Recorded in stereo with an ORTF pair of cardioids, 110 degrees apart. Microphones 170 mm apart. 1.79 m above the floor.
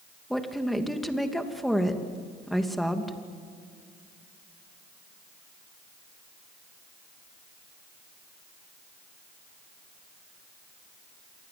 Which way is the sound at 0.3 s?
Straight ahead.